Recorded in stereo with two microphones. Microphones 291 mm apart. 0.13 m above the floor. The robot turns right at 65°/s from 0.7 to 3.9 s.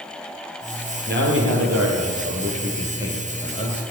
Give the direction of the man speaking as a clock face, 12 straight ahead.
5 o'clock.